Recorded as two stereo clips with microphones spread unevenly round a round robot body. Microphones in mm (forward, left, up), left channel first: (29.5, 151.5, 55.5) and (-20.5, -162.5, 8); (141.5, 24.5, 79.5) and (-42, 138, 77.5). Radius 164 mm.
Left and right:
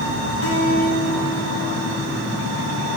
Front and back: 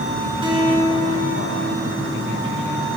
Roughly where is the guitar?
Left.